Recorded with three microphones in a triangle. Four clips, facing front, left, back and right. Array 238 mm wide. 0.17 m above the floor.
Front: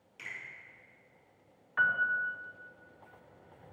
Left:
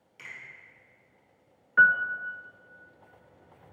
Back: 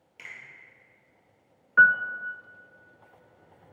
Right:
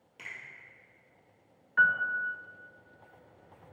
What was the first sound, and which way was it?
A finger snap, 115° right.